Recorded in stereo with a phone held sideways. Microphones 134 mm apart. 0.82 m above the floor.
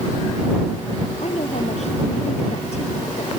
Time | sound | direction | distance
1.2 | a woman speaking | 55° left (ahead or behind) | ?